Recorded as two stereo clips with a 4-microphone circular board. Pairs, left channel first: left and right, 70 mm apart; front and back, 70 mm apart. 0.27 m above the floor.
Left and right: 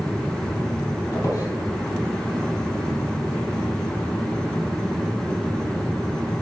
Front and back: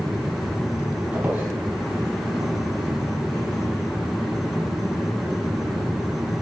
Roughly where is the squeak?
Behind left.